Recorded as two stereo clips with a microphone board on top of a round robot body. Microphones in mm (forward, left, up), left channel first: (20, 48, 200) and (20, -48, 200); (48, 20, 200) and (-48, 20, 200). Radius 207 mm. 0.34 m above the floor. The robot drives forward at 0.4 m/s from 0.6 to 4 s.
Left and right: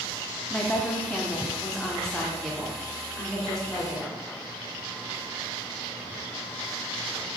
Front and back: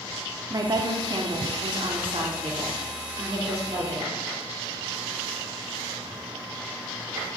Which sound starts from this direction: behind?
A woman speaking, at 0.5 s.